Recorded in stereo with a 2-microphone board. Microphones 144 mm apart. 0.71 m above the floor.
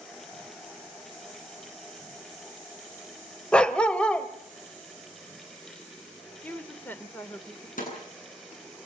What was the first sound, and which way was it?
A dog barking, 5° left (ahead or behind).